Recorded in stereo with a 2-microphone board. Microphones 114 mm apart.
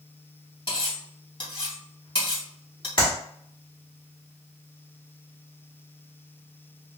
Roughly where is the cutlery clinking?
Left.